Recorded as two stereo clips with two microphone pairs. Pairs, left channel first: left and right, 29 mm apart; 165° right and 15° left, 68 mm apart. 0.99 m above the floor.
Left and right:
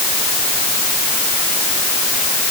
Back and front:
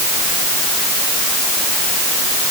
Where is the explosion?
No explosion in this recording.